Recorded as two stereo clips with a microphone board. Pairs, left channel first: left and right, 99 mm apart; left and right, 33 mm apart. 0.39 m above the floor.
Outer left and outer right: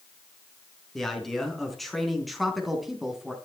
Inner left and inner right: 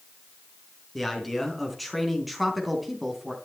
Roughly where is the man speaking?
Centre.